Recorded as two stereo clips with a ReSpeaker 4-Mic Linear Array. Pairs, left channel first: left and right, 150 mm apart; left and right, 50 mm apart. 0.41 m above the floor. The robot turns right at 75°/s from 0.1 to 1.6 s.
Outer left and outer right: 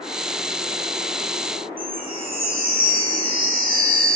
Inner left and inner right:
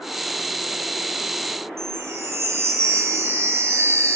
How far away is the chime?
About 5 m.